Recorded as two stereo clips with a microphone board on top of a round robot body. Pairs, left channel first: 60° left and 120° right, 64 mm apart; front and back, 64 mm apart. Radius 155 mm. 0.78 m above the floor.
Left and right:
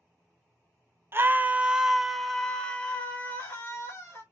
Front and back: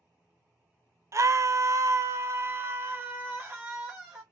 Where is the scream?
160° right, 0.8 m; by 4.2 s 115° left, 1.6 m.